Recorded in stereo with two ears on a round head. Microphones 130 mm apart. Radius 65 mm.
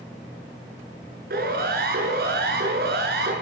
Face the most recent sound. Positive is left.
turn(degrees=-75)  # may be behind; listen again after turning